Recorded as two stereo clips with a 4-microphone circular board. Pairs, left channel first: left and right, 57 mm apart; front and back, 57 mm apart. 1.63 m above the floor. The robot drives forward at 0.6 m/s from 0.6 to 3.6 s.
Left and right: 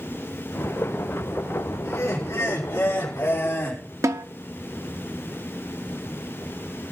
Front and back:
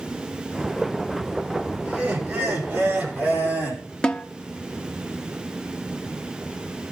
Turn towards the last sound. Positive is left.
turn(degrees=-75)